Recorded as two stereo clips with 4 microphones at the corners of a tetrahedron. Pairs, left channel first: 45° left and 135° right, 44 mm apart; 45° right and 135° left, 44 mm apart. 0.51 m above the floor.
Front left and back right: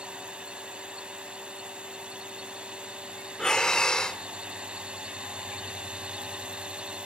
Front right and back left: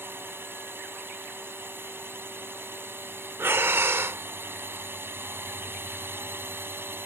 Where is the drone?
160° left.